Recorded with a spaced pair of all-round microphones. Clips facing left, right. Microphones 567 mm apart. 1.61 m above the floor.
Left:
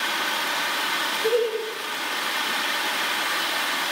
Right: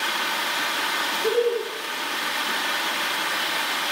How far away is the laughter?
About 1.6 m.